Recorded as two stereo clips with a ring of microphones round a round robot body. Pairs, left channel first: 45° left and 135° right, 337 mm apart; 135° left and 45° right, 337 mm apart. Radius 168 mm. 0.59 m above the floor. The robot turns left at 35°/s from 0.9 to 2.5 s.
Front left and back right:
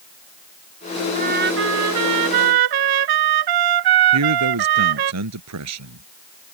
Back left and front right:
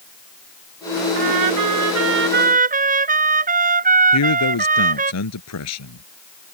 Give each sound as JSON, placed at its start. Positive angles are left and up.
{"t": 1.1, "sound": "a trumpet", "azimuth_deg": -65}
{"t": 4.1, "sound": "a man speaking", "azimuth_deg": 180}